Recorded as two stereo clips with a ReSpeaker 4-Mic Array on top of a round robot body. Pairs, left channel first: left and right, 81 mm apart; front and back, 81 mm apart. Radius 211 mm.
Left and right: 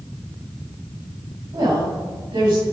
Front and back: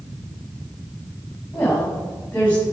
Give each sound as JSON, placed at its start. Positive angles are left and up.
{"t": 1.5, "sound": "a woman speaking", "azimuth_deg": -70, "distance_m": 2.5}